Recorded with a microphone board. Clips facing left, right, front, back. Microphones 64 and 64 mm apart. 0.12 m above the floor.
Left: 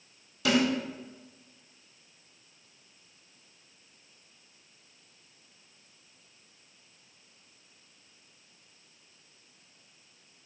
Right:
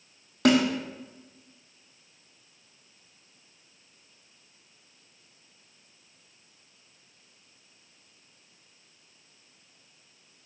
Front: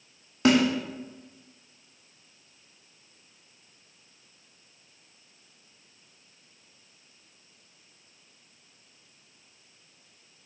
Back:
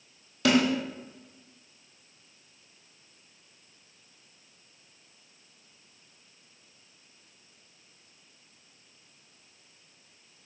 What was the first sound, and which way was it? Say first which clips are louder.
A snare drum: right 4 dB, front 2 dB; 65° right.